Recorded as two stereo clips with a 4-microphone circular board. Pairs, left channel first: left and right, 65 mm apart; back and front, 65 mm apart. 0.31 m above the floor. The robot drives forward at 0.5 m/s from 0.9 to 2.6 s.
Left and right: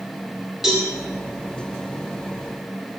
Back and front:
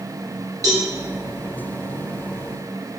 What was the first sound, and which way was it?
A cowbell, 10° right.